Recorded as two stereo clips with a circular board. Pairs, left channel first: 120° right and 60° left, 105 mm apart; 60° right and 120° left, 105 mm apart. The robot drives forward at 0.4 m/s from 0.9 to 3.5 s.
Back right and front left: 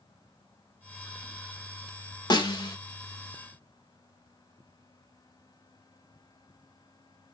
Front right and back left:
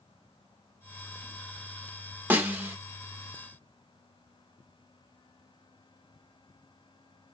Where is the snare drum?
170° right, 1.0 m.